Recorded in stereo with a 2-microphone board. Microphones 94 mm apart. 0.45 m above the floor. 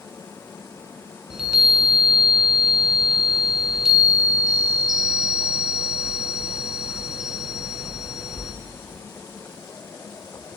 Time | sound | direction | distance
1.3 | a chime | 5° right (ahead or behind) | 3.5 m